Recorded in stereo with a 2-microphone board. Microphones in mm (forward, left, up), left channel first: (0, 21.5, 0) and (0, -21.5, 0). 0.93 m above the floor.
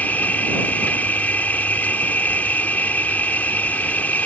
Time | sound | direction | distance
0.0 | an insect | 40° left (ahead or behind) | ?